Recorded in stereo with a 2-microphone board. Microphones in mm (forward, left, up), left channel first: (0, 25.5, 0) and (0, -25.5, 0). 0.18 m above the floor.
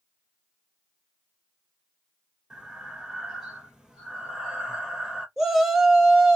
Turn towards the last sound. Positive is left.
turn(degrees=0)  # may be behind; listen again after turning